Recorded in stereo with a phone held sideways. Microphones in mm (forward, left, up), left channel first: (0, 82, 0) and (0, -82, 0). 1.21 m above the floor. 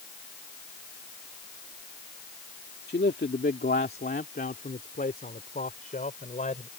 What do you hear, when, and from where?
2.9 s a man speaking: 85° left; by 6.7 s 50° left (ahead or behind)